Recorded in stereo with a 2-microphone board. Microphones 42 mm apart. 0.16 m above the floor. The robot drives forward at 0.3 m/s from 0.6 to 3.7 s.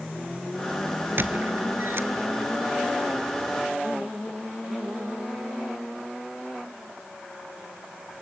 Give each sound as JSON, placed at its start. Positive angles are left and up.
{"t": 1.2, "sound": "a squeak", "side_deg": -60, "distance_m": 1.4}